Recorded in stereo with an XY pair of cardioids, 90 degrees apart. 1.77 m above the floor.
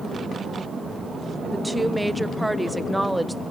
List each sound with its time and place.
1.5 s a woman speaking: 15° right, 1.3 m